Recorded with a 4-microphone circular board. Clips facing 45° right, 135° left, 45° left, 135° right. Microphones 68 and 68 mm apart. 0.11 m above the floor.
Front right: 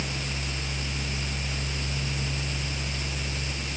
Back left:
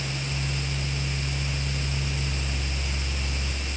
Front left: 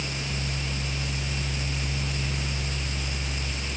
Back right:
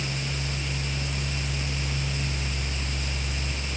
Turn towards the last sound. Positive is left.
No sound to turn to.